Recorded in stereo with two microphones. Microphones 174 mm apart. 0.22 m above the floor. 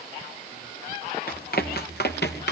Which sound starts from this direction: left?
Running footsteps, at 1.3 s.